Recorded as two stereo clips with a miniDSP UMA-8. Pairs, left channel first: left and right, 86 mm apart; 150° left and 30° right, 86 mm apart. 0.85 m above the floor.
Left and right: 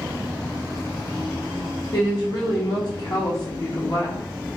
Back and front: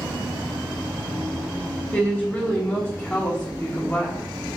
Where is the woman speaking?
90° left, 1.0 m.